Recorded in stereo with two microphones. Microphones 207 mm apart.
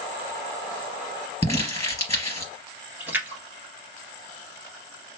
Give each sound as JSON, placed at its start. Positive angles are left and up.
{"t": 1.4, "sound": "crumpling", "side_deg": 15, "distance_m": 3.0}
{"t": 3.0, "sound": "a splash", "side_deg": -10, "distance_m": 1.7}